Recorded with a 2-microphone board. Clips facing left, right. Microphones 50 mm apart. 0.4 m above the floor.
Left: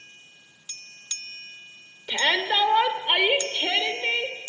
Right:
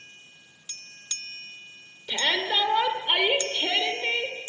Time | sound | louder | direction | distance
2.1 | a shout | left 3 dB | 30° left (ahead or behind) | 1.5 m